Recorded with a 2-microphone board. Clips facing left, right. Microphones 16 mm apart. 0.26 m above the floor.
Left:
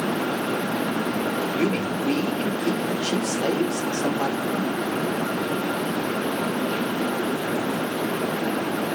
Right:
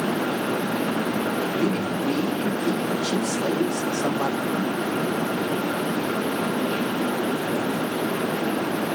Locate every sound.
1.5 s a man speaking: 75° left (ahead or behind), 4.5 m